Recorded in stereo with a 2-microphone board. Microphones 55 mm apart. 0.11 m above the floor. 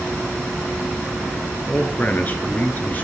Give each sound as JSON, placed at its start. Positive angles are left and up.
{"t": 1.7, "sound": "a man speaking", "side_deg": 30, "distance_m": 1.3}